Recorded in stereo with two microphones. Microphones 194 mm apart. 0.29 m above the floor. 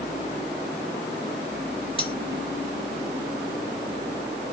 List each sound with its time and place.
2.0 s cutlery clinking: 25° left (ahead or behind), 1.9 m